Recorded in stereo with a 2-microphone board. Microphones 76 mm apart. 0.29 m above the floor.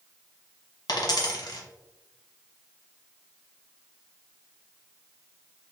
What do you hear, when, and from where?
0.9 s a dropped coin: 70° left (ahead or behind), 1.0 m